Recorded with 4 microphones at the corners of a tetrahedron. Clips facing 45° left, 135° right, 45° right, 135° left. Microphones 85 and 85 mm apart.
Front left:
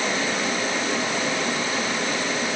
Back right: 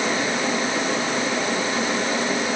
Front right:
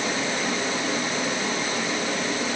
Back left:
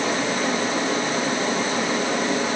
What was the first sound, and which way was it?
Only background noise.